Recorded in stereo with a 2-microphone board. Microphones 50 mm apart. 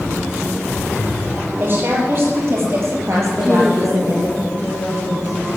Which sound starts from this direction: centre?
A woman speaking, at 3.3 s.